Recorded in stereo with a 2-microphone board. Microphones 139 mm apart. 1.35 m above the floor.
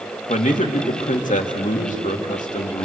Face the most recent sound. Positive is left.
turn(degrees=65)  # may be behind; listen again after turning